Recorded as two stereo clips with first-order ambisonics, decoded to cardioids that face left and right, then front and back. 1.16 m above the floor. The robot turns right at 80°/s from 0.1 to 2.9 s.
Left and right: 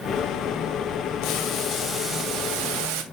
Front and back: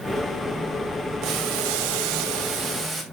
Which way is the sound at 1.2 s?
125° left.